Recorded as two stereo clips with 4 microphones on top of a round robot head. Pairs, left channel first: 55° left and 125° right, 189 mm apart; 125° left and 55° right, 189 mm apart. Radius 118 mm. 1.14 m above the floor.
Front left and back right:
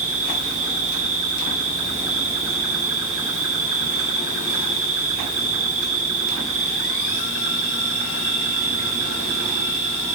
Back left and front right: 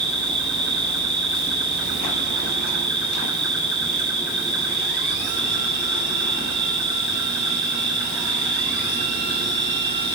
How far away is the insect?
About 2.5 m.